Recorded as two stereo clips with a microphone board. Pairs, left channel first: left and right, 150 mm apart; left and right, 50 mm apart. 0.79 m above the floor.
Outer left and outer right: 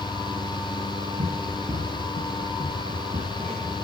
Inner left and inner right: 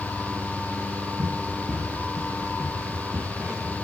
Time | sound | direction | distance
1.2 | running footsteps | 45° right (ahead or behind) | 6.5 m